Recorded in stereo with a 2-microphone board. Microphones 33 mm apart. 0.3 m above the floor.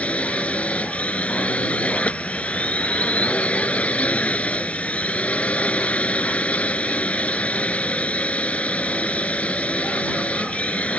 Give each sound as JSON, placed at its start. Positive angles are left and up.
{"t": 0.0, "sound": "a drone", "side_deg": 50}